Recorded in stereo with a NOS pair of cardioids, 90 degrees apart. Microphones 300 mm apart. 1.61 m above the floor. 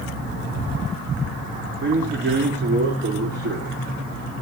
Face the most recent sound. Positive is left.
turn(degrees=-40)